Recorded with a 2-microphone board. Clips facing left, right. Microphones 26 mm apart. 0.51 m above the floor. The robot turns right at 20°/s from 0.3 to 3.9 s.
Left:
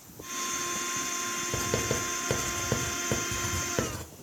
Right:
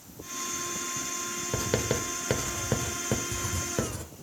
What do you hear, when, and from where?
1.5 s writing: 25° right (ahead or behind), 0.9 m; by 4.0 s 15° left (ahead or behind), 0.9 m